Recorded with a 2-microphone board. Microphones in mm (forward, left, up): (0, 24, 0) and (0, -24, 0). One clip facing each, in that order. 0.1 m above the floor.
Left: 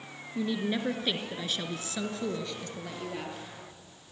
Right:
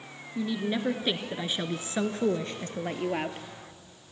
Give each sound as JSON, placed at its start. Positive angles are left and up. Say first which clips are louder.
{"t": 0.3, "sound": "a woman speaking", "louder": "right 1 dB", "side_deg": 5, "distance_m": 1.2}